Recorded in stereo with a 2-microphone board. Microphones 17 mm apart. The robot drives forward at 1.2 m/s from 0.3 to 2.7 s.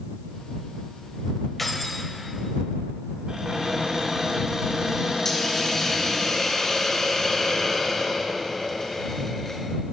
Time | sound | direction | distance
1.6 | keys jangling | 10° left (ahead or behind) | 1.3 m
3.3 | a cupboard door | 60° right (ahead or behind) | 3 m
5.2 | a hiss | 30° left (ahead or behind) | 2.5 m